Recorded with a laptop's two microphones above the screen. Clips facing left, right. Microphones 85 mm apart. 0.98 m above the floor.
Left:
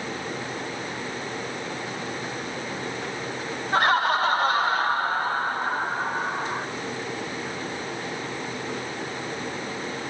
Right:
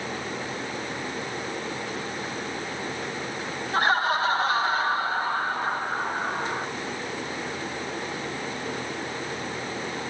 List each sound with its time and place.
3.7 s laughter: 75° left (ahead or behind), 4.5 m; by 6.7 s 20° left (ahead or behind), 5 m